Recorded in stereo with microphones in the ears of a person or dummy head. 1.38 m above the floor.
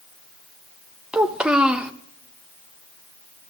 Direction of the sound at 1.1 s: 5° right (ahead or behind).